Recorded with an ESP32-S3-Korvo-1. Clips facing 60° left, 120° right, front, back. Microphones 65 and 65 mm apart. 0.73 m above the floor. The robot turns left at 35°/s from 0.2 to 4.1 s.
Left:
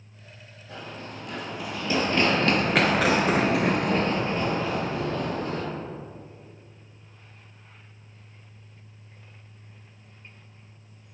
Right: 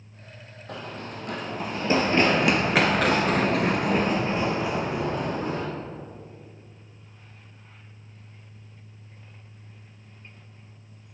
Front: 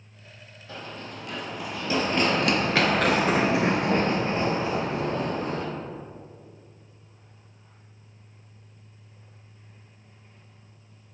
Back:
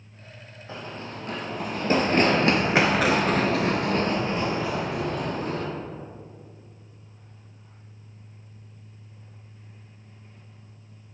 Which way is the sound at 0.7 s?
120° right.